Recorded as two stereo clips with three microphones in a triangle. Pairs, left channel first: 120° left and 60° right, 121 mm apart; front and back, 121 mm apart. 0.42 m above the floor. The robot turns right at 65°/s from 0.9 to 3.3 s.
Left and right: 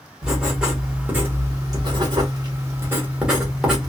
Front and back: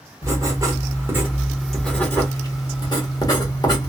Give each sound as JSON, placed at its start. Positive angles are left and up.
{"t": 0.2, "sound": "writing", "azimuth_deg": -135, "distance_m": 1.1}